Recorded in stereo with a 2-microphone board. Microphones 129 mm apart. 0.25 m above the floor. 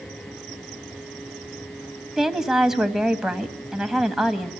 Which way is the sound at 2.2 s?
5° right (ahead or behind).